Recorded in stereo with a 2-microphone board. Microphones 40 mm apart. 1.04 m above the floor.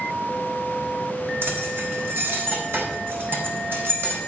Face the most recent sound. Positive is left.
turn(degrees=-60)  # may be behind; listen again after turning